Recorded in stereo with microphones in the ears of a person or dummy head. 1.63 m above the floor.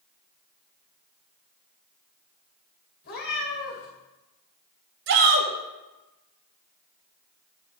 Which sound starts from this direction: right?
A shout, at 5.1 s.